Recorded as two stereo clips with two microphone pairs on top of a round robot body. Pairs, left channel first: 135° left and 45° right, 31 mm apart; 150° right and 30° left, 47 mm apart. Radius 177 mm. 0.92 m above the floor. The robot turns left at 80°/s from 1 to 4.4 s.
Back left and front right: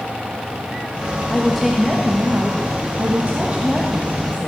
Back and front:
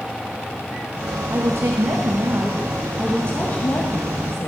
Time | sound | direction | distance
1.3 | a woman speaking | 75° left | 1.8 m